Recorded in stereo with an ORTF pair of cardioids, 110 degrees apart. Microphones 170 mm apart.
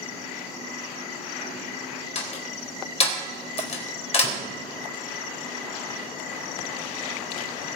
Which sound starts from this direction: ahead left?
A door slam, at 2.1 s.